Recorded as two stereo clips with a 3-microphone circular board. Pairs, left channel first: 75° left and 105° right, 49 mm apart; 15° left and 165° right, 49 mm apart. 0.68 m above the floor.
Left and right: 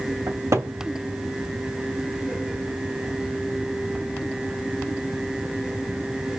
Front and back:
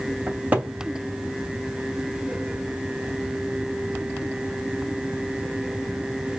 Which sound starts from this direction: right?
A cupboard door, at 0.3 s.